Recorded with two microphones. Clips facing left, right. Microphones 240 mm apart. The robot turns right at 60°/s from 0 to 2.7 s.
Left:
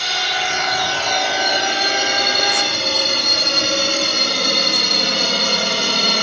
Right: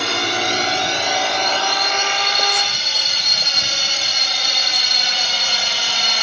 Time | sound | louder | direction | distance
0.0 | a drone | right 5 dB | 70° right (ahead or behind) | ?